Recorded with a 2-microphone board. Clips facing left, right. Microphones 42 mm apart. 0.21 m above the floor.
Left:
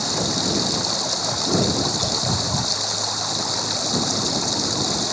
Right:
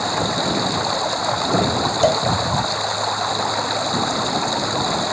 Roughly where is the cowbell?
Right.